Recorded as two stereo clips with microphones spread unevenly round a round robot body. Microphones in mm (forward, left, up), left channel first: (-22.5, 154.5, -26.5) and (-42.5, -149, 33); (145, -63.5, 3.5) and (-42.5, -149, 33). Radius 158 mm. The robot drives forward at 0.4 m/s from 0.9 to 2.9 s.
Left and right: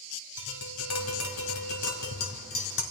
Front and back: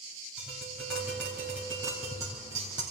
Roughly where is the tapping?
Left.